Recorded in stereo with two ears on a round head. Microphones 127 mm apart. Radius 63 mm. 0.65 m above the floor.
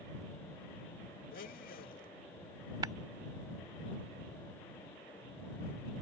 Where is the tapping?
25° right (ahead or behind).